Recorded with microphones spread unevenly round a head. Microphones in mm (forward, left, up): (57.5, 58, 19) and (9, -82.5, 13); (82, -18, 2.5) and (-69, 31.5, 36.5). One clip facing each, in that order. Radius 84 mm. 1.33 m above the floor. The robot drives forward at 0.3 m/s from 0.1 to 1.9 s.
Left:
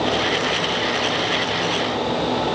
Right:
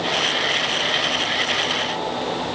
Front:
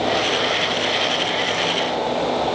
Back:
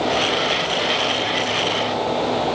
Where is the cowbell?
I don't hear a cowbell.